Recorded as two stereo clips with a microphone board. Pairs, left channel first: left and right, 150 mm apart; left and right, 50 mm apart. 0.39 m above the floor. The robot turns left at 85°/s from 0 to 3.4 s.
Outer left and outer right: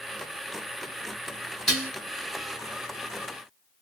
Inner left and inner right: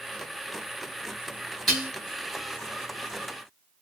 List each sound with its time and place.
1.7 s dishes clattering: centre (ahead or behind), 1.3 m; by 1.9 s 15° right (ahead or behind), 1.3 m